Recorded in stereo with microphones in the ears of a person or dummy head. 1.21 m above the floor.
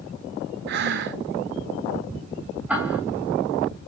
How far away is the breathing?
About 0.8 m.